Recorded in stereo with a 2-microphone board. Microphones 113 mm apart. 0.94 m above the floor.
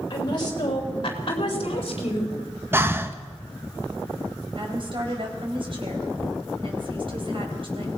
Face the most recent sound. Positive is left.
turn(degrees=-50)  # may be behind; listen again after turning